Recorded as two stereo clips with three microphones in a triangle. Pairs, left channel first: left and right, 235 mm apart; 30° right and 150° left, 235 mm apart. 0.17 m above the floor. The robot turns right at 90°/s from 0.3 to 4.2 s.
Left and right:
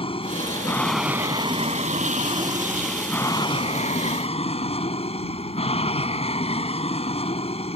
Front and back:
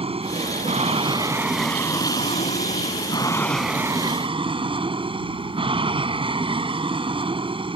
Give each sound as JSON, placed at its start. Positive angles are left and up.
{"t": 0.0, "sound": "an aircraft", "azimuth_deg": 120}